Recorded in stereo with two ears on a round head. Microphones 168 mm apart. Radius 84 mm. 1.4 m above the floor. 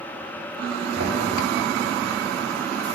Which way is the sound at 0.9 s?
70° right (ahead or behind).